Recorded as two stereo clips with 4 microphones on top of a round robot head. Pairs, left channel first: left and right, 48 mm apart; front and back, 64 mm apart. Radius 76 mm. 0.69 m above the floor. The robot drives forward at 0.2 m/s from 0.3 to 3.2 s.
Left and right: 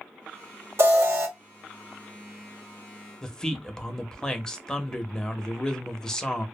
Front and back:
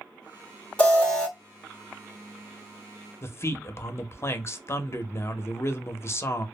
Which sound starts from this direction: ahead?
A man speaking, at 3.2 s.